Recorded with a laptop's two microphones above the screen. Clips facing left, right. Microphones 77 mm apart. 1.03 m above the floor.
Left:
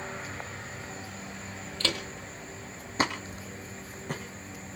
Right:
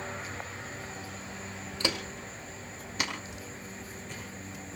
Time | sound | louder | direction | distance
1.8 | footsteps | even | 15° right (ahead or behind) | 1.6 m